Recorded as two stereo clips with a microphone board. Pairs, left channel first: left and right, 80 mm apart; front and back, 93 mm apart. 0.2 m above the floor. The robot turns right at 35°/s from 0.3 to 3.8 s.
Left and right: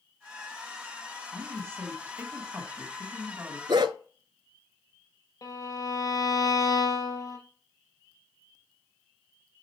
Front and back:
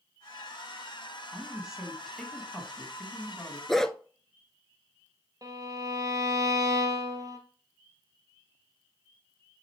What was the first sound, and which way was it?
A woman speaking, 115° right.